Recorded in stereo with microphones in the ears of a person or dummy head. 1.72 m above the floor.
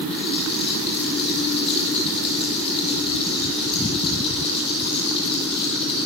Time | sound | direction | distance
0.1 | a rattle | 30° left (ahead or behind) | 6.5 m